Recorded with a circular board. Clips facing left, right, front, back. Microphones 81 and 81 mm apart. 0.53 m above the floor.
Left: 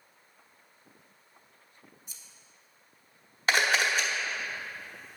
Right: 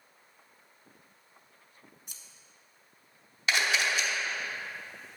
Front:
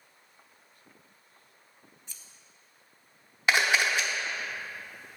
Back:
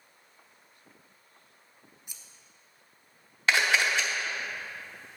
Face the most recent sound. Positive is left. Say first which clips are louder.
# left 3 dB, even
turn(degrees=70)